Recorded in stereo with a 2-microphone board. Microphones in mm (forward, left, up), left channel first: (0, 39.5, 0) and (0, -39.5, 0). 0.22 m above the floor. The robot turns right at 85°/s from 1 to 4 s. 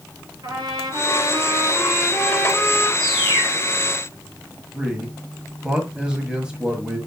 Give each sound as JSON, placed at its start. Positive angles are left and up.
{"t": 0.4, "sound": "a trumpet", "azimuth_deg": -110, "distance_m": 3.5}
{"t": 3.0, "sound": "a bird", "azimuth_deg": 70, "distance_m": 2.0}
{"t": 4.7, "sound": "a man speaking", "side_deg": -10, "distance_m": 1.6}